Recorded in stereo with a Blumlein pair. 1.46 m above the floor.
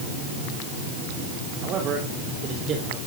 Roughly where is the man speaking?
Ahead right.